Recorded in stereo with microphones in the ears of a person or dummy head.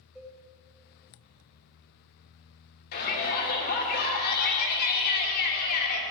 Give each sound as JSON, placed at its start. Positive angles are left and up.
{"t": 0.1, "sound": "a cowbell", "side_deg": 0, "distance_m": 3.0}
{"t": 2.9, "sound": "a shout", "side_deg": 50, "distance_m": 3.0}